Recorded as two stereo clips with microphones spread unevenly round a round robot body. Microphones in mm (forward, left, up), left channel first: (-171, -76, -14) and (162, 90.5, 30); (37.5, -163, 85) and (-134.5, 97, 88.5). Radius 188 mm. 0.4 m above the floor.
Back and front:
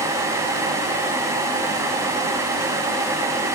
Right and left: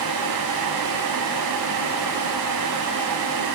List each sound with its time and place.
Only background noise.